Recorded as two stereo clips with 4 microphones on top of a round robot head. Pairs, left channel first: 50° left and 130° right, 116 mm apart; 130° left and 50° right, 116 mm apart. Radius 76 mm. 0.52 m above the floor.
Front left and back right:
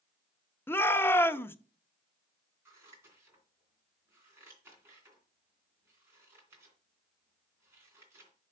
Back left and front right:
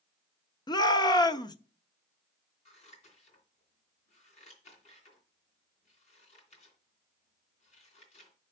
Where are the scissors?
160° left, 2.5 m.